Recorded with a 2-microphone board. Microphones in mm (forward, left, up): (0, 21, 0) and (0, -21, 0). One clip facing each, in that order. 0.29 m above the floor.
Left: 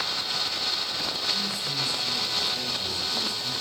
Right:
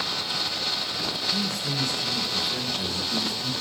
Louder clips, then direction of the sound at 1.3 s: Right 2 dB; 60° right (ahead or behind).